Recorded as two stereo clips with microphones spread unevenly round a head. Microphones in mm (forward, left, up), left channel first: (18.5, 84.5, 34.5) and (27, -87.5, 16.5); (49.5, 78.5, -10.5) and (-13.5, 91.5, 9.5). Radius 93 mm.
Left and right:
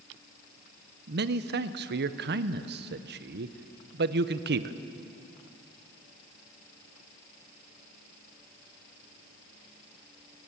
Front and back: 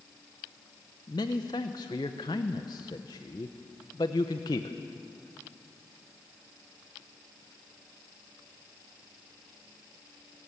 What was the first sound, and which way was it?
A man speaking, 60° right.